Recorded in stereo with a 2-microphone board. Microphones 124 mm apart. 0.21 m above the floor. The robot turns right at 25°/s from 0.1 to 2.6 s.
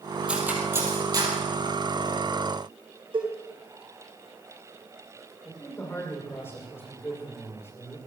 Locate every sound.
0.3 s cutlery clinking: 10° right (ahead or behind), 4 m; by 1.3 s 35° right (ahead or behind), 4 m
3.1 s a cowbell: 45° right (ahead or behind), 4 m
5.5 s a man speaking: 20° left (ahead or behind), 10 m